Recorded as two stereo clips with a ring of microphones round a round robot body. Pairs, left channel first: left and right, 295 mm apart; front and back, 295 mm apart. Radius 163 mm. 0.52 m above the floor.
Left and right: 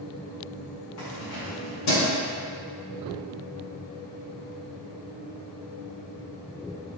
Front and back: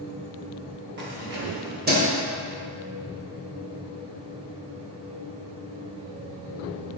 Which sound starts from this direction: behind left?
Keys jangling, at 1.0 s.